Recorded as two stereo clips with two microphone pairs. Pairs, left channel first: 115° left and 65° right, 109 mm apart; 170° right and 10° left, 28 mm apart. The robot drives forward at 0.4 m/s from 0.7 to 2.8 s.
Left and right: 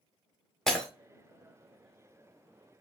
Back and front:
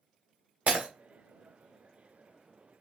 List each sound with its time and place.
0.7 s breaking glass: 35° left, 1.1 m